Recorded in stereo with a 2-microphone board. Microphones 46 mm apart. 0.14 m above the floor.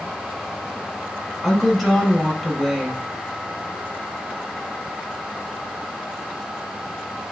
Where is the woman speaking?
5° left (ahead or behind), 1.0 m.